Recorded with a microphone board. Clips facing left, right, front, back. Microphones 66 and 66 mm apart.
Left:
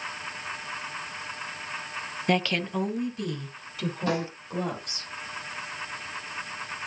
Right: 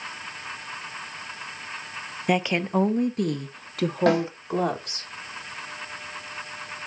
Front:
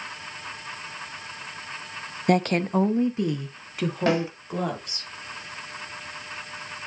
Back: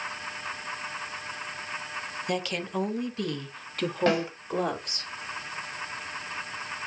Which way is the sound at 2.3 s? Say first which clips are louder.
Right 3 dB, front 10 dB; 10° right.